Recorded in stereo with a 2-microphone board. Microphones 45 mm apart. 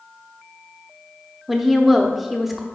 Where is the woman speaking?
5° right (ahead or behind), 0.7 m.